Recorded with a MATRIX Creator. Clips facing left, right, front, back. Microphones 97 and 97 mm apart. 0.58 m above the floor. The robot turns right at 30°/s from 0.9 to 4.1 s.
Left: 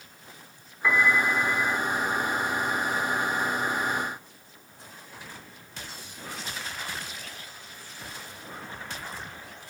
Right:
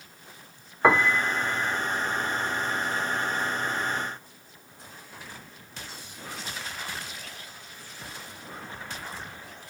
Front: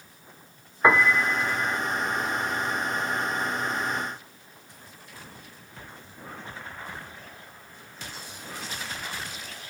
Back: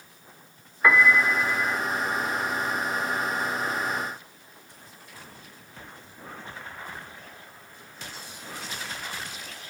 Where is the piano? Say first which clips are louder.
Right 2 dB, back 1 dB; 60° right, 0.6 m; by 1.8 s 35° right, 0.6 m.